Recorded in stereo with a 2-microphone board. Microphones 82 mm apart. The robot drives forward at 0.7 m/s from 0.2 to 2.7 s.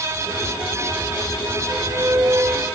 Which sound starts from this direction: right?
A flute, at 1.7 s.